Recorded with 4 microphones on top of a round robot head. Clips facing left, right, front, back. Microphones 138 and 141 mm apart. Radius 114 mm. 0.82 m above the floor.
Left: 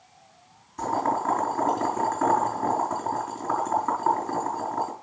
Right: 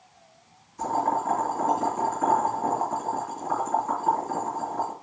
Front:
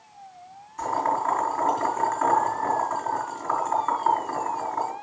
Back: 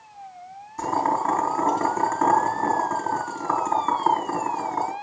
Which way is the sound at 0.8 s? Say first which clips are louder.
Even, back 2 dB; 130° left.